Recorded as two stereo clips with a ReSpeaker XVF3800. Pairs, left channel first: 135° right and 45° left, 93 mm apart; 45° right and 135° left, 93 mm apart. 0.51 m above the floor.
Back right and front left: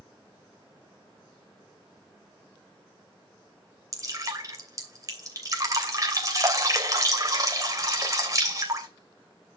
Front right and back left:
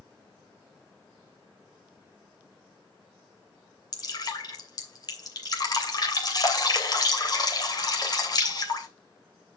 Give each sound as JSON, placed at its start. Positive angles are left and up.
{"t": 3.9, "sound": "dripping", "azimuth_deg": -5, "distance_m": 2.5}